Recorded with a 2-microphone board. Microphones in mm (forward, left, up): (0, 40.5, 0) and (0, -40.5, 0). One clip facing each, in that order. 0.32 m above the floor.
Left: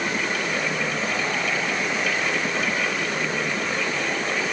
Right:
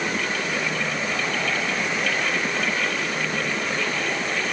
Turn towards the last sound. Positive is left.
No sound to turn to.